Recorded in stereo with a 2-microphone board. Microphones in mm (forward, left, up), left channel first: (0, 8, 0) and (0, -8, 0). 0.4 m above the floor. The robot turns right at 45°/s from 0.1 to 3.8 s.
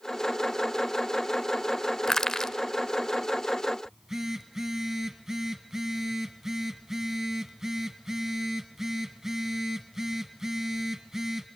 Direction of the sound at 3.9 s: 35° right (ahead or behind).